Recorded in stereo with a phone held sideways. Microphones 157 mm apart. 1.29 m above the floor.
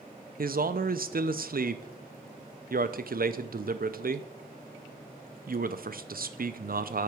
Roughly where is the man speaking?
Right.